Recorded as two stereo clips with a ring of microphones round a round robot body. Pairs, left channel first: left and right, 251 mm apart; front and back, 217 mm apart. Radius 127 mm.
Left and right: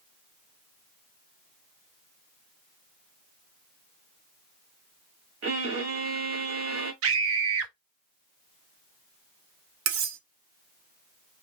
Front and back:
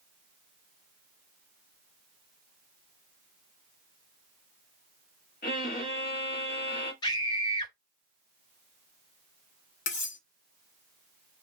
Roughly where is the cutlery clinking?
Ahead right.